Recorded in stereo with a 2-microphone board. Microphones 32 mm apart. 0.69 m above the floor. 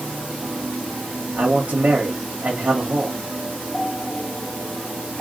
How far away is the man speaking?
About 1.7 m.